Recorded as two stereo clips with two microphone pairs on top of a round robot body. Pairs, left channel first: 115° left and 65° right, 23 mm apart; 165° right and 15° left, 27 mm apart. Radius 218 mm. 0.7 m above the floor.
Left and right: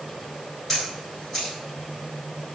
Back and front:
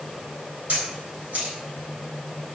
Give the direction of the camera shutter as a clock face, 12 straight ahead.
11 o'clock.